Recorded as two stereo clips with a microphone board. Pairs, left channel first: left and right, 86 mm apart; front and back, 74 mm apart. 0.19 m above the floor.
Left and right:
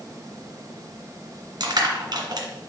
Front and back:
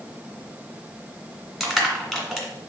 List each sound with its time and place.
1.6 s crushing: 90° right, 2.0 m